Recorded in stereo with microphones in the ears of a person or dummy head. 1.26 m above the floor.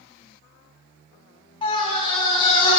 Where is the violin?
I don't hear a violin.